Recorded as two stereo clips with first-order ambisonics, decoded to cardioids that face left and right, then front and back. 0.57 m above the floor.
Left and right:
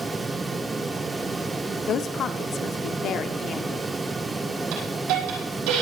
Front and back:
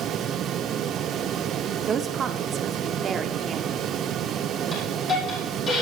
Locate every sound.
1.9 s a woman speaking: 130° left, 0.9 m
4.7 s a hiss: 70° right, 5.5 m